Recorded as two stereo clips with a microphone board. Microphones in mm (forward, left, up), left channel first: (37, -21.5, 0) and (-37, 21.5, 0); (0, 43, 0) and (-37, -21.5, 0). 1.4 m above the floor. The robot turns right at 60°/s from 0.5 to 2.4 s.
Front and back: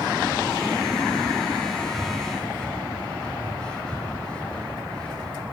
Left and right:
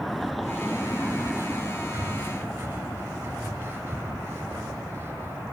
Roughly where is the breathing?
Behind right.